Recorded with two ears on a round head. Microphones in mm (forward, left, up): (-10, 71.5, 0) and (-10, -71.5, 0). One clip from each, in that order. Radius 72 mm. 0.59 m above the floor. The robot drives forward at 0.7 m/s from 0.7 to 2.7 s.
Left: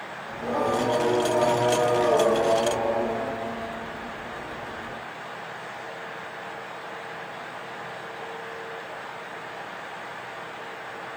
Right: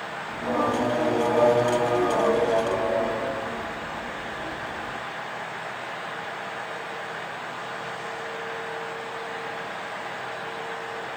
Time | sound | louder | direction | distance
0.3 | singing | even | 10° left (ahead or behind) | 5 m